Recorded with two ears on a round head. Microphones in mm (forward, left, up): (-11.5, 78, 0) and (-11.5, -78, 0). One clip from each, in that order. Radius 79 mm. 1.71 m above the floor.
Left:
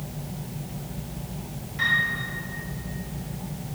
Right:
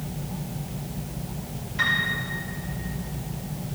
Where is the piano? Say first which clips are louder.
Left 1 dB; 20° right (ahead or behind), 4 m.